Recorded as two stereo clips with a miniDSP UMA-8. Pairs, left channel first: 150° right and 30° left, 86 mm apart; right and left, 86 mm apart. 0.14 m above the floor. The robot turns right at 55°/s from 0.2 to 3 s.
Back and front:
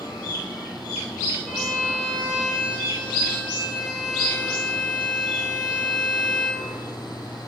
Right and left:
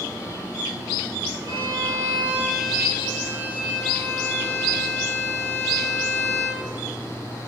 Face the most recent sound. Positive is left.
turn(degrees=-165)